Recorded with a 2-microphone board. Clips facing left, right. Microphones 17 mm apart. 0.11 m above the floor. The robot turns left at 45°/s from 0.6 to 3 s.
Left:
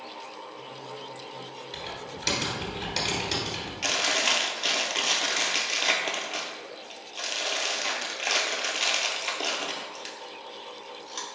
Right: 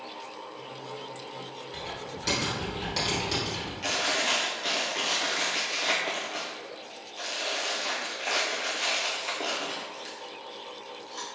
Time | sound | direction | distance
1.7 | typing on a keyboard | 40° left (ahead or behind) | 1.6 m
3.8 | chewing | 45° left (ahead or behind) | 0.8 m